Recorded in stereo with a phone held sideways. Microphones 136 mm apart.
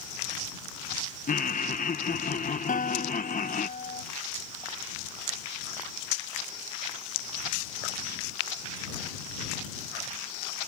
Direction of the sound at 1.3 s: 75° left (ahead or behind).